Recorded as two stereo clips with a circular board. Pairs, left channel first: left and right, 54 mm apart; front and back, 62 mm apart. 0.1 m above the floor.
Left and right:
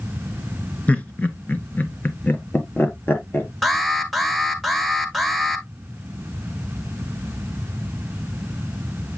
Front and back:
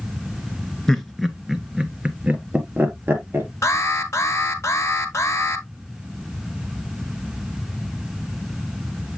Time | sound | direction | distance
0.9 | laughter | 70° left | 1.2 m
3.6 | an alarm | 5° left | 1.3 m